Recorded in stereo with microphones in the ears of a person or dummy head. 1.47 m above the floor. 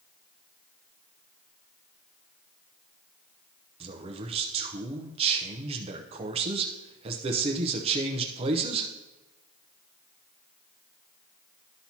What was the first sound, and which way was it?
A man speaking, 30° right (ahead or behind).